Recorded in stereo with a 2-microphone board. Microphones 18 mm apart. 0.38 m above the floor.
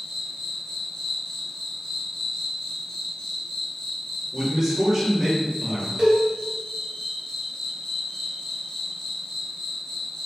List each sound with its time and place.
0.0 s an insect: 70° left (ahead or behind), 1.3 m
4.3 s a man speaking: 10° right (ahead or behind), 1.1 m
6.0 s a cowbell: 40° right (ahead or behind), 1.6 m